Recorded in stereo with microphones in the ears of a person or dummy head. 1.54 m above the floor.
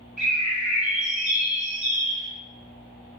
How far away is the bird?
About 1.5 m.